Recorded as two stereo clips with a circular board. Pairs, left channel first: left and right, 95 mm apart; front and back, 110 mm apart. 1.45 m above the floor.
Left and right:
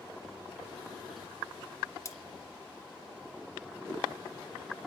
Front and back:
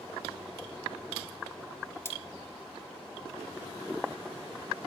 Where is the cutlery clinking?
55° left, 0.7 m.